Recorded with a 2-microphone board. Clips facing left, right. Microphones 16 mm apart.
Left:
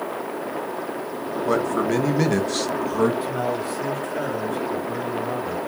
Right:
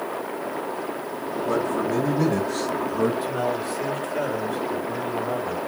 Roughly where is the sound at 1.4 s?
Left.